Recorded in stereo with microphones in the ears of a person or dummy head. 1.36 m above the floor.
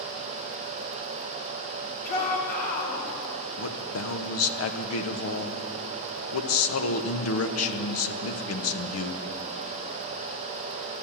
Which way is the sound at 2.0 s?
55° left (ahead or behind).